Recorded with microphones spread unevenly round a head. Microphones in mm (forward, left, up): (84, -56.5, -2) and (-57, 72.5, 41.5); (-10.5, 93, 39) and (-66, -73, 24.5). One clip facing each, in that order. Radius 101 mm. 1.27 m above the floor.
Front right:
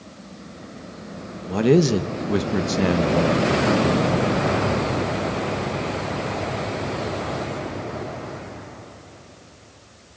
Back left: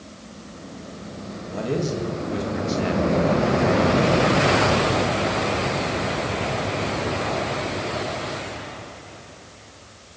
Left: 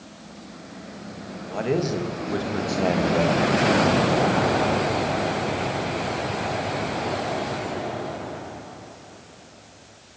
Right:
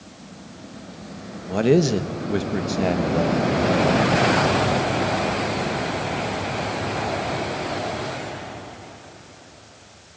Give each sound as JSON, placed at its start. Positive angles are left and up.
{"t": 1.5, "sound": "a man speaking", "azimuth_deg": -55, "distance_m": 1.4}